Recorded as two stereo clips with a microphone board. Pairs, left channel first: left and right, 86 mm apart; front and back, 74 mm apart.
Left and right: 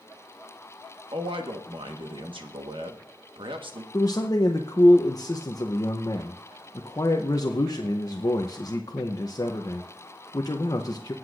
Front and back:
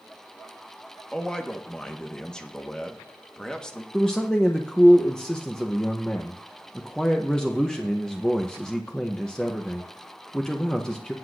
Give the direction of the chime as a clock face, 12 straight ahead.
I don't hear a chime.